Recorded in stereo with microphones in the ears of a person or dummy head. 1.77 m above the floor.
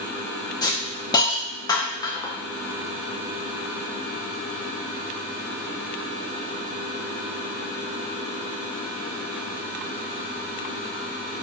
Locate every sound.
0.6 s a hiss: 20° left (ahead or behind), 0.5 m